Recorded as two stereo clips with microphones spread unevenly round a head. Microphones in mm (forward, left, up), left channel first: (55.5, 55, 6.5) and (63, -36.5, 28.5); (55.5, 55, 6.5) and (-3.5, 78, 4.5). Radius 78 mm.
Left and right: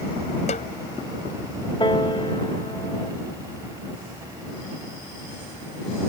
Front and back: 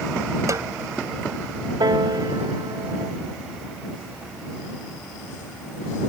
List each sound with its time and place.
0.5 s a snare drum: 125° left
1.8 s a piano: 155° left